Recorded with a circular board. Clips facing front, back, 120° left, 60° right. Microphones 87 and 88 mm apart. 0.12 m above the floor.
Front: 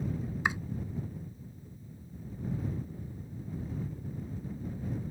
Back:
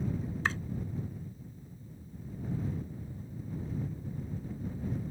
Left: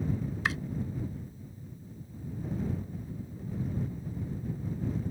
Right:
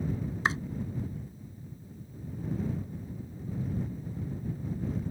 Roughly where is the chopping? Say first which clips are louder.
Front 2 dB, right 3 dB; ahead right.